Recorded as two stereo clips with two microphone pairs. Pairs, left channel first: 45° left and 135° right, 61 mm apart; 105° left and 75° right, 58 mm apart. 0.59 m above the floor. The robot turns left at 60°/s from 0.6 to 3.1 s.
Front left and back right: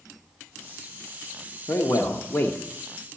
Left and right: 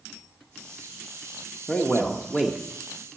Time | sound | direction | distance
1.7 | a man speaking | 50° left | 1.2 m